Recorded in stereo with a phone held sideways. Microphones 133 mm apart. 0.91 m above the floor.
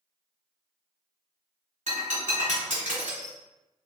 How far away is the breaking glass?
About 1.3 m.